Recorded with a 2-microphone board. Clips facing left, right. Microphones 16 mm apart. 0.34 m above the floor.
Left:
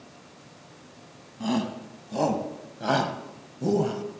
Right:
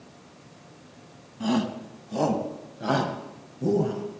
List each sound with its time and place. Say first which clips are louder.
1.4 s a shout: right 2 dB; centre (ahead or behind), 2.5 m; by 4.0 s 40° left (ahead or behind), 1.7 m